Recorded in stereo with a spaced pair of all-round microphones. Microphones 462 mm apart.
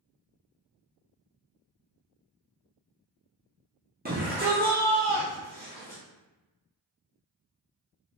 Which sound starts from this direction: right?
A shout, at 4.0 s.